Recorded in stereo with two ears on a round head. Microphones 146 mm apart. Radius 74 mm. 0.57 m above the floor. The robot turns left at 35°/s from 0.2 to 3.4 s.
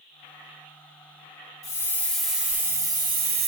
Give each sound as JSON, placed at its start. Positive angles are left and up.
{"t": 1.6, "sound": "a hiss", "azimuth_deg": 20, "distance_m": 1.7}